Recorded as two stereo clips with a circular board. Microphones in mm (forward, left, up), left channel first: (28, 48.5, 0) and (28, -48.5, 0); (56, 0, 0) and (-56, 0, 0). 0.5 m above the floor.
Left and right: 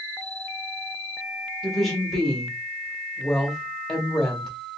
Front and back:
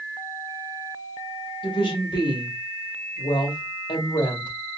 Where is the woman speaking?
5° left, 1.3 m.